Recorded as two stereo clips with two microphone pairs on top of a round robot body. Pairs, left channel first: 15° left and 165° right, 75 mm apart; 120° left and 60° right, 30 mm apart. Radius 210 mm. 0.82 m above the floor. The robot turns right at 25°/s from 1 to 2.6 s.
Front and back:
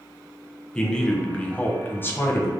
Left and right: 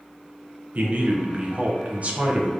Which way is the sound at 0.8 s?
60° right.